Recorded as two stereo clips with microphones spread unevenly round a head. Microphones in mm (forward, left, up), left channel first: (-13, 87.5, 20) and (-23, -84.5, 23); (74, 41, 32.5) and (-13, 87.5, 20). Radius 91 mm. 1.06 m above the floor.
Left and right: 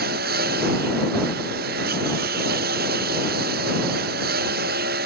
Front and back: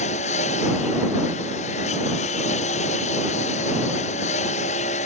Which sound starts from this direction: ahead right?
A lawn mower, at 0.0 s.